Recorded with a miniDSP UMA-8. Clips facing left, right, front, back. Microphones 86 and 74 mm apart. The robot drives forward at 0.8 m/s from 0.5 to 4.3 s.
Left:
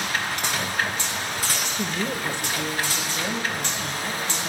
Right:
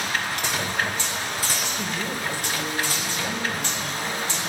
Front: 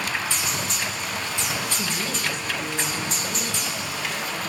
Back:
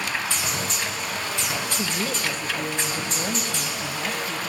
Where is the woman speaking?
115° left, 0.9 m; by 4.4 s 170° left, 2.5 m.